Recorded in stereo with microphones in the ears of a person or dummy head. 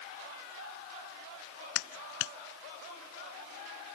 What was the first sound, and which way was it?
A clap, 65° left (ahead or behind).